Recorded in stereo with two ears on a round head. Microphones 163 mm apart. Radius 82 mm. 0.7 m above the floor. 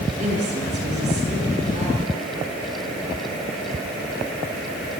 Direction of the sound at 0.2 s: 40° right (ahead or behind).